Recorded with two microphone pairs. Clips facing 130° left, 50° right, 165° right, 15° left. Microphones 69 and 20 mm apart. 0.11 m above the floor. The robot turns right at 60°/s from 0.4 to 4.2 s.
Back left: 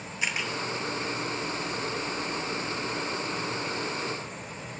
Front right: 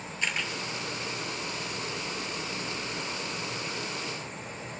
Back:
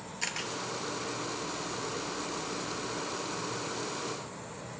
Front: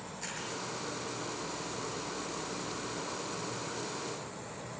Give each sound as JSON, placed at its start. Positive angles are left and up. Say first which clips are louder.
{"t": 0.2, "sound": "a camera shutter", "louder": "back left 1 dB, back 6 dB", "azimuth_deg": -155, "distance_m": 1.0}